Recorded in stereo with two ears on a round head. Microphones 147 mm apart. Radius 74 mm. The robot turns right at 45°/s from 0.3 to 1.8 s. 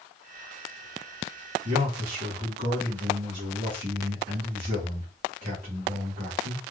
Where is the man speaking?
45° right (ahead or behind), 1.8 m; by 6.6 s 55° right (ahead or behind), 1.8 m.